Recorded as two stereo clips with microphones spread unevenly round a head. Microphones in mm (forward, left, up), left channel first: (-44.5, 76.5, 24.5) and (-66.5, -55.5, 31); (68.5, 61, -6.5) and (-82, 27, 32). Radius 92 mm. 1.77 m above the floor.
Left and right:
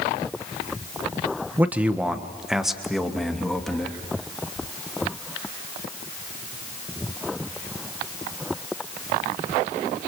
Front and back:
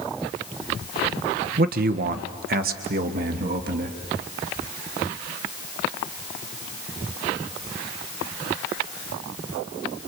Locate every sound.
1.6 s a man speaking: 175° right, 1.2 m; by 4.0 s 170° left, 3 m